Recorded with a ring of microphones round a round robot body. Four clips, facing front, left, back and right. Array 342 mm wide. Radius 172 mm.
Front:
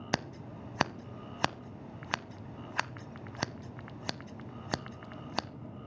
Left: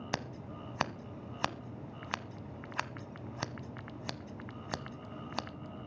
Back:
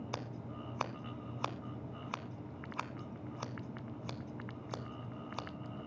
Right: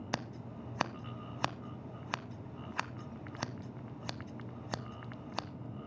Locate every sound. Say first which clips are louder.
0.1 s scissors: left 1 dB, front 6 dB; straight ahead, 0.8 m